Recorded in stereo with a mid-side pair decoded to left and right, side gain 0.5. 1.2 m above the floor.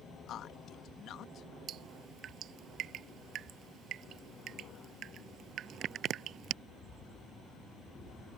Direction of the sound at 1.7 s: 60° right.